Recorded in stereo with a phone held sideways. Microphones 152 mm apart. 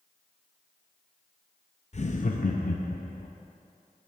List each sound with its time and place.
1.9 s laughter: 45° left (ahead or behind), 0.5 m; by 3.3 s 65° left (ahead or behind), 1.1 m